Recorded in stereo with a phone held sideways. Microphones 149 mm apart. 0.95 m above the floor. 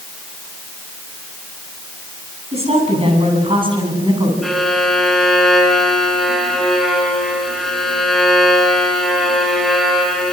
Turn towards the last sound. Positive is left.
turn(degrees=0)  # may be behind; listen again after turning